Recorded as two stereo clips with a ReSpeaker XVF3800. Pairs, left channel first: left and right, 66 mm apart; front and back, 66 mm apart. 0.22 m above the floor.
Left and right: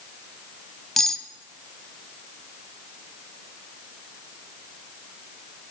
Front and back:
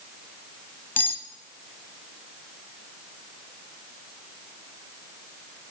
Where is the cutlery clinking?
10° left, 0.8 m.